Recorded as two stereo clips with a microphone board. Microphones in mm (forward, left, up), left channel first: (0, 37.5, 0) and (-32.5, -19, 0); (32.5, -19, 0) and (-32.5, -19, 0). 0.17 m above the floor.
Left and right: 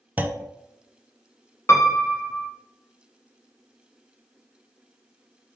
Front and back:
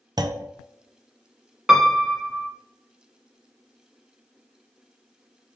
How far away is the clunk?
About 0.5 m.